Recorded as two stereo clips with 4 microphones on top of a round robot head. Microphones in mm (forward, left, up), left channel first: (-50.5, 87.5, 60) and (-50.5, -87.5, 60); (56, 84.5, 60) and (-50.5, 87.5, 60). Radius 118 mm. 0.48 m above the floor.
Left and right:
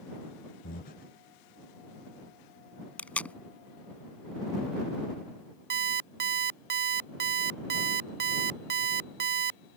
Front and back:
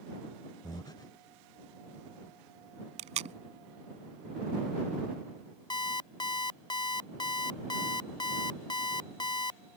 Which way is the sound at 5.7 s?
55° right.